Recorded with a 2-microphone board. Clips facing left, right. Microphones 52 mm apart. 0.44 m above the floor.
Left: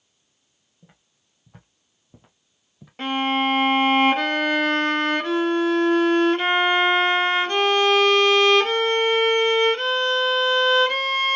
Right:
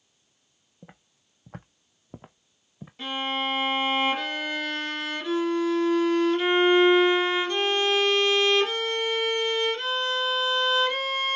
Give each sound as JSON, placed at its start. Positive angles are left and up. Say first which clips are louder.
{"t": 0.8, "sound": "footsteps", "louder": "right 6 dB", "side_deg": -45, "distance_m": 1.1}
{"t": 3.0, "sound": "a violin", "louder": "left 7 dB", "side_deg": 55, "distance_m": 0.9}